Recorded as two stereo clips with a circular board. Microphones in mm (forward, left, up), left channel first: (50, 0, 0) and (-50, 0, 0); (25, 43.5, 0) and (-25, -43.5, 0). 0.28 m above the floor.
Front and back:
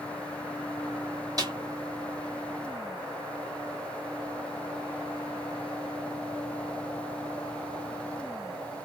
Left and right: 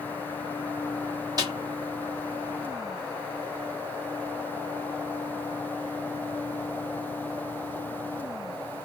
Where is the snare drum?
150° right, 1.4 m.